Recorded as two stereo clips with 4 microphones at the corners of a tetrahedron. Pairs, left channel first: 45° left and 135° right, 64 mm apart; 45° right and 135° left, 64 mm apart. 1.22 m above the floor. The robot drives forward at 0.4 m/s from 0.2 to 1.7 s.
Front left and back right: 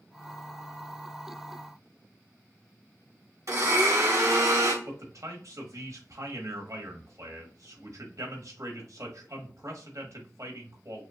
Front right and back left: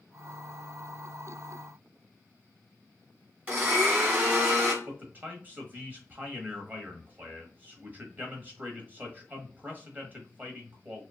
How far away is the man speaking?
About 1.5 m.